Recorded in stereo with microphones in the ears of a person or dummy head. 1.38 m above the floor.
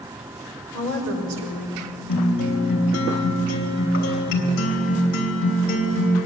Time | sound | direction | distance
0.7 | a woman speaking | 90° right | 4.5 m
2.1 | a guitar | 45° left (ahead or behind) | 3 m